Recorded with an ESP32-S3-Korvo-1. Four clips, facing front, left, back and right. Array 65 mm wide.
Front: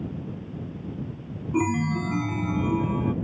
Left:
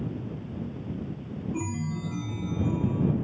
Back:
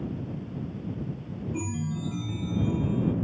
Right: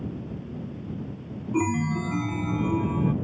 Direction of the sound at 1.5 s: 40° right.